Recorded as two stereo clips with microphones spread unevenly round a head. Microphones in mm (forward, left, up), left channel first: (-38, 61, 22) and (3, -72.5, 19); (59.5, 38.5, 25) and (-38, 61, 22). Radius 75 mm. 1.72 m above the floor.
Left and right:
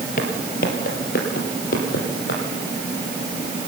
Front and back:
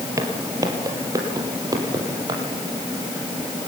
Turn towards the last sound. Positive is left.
turn(degrees=120)